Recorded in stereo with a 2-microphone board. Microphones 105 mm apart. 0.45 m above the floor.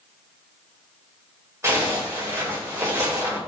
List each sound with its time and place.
1.6 s a zipper: 25° right (ahead or behind), 2 m